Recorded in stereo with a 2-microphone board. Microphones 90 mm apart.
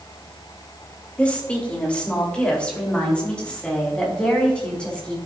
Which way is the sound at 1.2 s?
15° left (ahead or behind).